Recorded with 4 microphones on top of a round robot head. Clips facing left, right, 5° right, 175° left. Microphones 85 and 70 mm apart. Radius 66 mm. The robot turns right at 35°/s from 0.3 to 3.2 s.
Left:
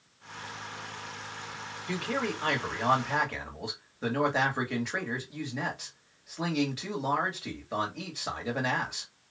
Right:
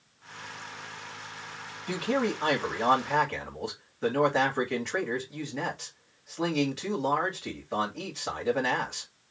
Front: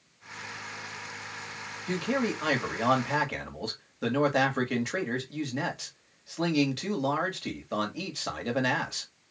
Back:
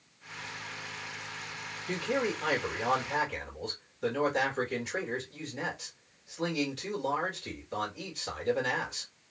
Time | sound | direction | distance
1.9 | a man speaking | 40° right | 2 m